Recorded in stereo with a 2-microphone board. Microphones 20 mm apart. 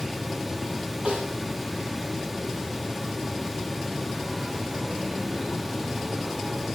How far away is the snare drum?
About 8 m.